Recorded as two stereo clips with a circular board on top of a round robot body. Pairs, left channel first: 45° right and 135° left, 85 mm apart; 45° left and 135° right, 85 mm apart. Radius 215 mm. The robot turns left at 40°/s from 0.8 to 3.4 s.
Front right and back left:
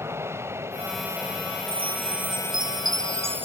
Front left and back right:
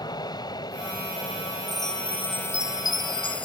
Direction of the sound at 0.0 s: 75° left.